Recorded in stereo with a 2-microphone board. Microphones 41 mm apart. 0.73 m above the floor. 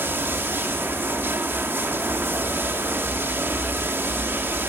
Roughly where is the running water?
Right.